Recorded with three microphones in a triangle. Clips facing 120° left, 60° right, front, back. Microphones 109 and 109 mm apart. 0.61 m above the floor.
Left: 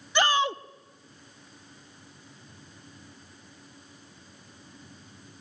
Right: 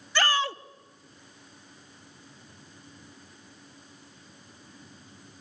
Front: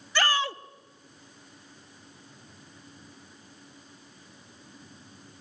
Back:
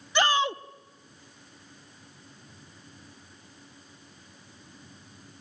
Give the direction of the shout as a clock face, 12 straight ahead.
7 o'clock.